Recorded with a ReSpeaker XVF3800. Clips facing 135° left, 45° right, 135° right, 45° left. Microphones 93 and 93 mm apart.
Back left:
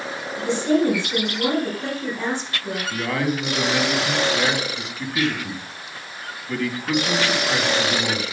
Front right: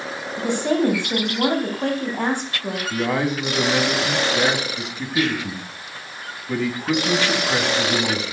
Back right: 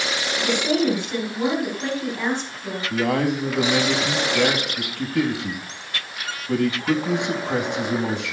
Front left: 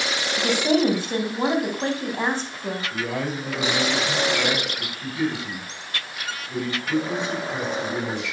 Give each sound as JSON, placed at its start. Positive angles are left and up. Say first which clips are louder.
{"t": 0.4, "sound": "a woman speaking", "louder": "back left 1 dB, front left 2 dB", "azimuth_deg": -10, "distance_m": 4.0}
{"t": 2.9, "sound": "a man speaking", "louder": "front right 2 dB, back right 10 dB", "azimuth_deg": -115, "distance_m": 4.0}